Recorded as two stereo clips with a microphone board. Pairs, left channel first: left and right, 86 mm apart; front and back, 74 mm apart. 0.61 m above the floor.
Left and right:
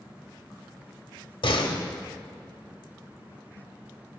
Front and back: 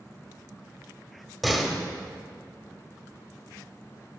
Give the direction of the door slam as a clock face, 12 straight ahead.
9 o'clock.